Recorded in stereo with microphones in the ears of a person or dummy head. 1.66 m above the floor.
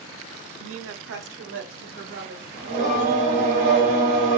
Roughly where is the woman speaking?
Right.